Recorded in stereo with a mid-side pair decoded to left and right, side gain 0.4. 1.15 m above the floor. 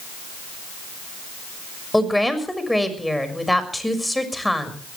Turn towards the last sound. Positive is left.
turn(degrees=5)